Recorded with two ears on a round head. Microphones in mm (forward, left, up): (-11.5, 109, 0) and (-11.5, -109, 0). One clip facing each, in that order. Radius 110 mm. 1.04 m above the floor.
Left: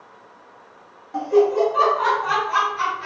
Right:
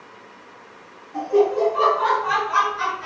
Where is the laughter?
60° left (ahead or behind), 0.9 m; by 3.1 s 50° left (ahead or behind), 1.3 m.